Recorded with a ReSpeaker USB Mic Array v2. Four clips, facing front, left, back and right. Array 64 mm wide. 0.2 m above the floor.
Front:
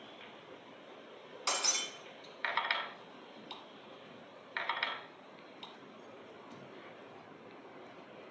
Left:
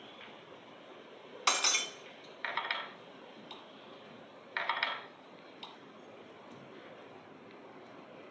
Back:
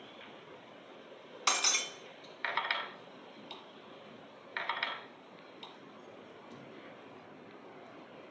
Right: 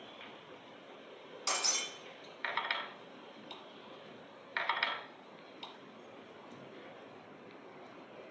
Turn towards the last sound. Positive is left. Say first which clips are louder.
# left 6 dB, back 4 dB
turn(degrees=120)